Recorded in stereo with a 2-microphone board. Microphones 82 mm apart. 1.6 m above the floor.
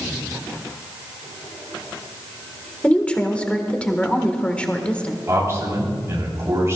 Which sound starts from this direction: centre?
A woman speaking, at 2.8 s.